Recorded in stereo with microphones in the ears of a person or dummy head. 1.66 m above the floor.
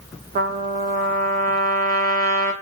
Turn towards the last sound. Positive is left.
turn(degrees=-40)  # may be behind; listen again after turning